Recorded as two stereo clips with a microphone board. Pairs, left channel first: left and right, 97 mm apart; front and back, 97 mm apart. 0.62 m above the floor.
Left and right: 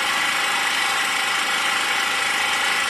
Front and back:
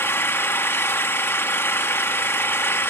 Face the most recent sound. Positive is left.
turn(degrees=0)